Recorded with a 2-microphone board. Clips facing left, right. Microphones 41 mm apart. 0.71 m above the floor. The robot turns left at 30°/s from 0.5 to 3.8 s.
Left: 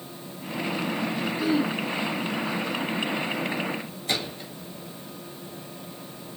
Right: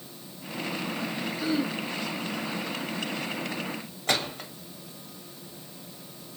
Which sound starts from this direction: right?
A gunshot, at 4.1 s.